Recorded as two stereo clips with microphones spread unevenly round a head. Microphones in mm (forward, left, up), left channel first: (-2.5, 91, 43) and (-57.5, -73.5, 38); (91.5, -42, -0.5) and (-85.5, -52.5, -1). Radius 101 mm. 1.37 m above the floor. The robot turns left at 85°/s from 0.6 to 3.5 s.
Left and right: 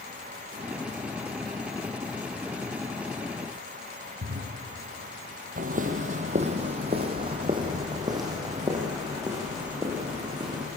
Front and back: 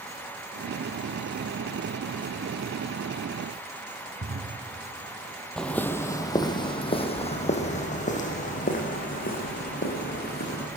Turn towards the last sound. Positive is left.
turn(degrees=-30)